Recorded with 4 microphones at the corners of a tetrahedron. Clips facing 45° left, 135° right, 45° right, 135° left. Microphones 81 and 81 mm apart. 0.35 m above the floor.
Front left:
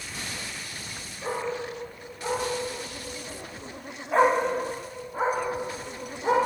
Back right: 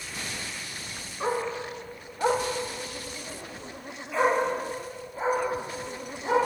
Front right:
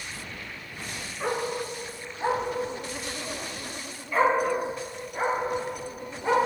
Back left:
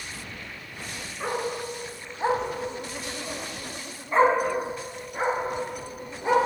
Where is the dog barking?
140° right, 1.8 m; by 6.5 s 60° left, 3 m.